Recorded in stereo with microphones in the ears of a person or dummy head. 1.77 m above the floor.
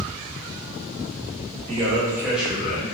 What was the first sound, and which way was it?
A man speaking, 30° right (ahead or behind).